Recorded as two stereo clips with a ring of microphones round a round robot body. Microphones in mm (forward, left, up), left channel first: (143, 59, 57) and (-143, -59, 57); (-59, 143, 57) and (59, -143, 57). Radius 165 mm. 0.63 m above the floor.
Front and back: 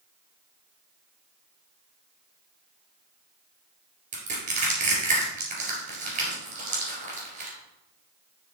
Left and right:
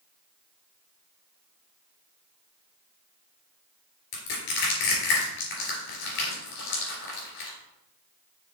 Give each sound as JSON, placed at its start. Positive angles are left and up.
{"t": 4.1, "sound": "crushing", "azimuth_deg": 135, "distance_m": 3.5}